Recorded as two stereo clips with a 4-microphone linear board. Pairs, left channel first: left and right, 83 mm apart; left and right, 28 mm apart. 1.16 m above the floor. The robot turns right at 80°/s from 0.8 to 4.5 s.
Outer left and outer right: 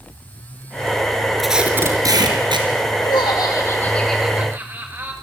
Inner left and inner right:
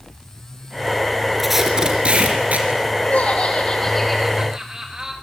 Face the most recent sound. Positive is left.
turn(degrees=-150)